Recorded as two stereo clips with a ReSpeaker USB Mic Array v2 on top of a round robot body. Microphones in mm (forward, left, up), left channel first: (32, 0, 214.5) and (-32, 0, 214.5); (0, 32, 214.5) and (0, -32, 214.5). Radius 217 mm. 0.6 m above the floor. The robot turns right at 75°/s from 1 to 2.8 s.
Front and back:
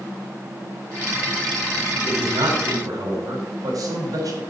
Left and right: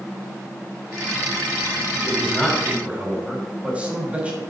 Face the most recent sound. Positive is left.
turn(degrees=-160)